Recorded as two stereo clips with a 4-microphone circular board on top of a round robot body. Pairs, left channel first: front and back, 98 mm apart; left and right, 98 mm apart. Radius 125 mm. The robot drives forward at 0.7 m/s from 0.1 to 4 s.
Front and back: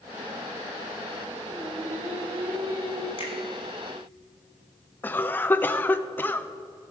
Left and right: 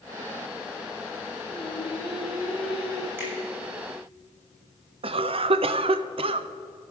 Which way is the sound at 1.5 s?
100° right.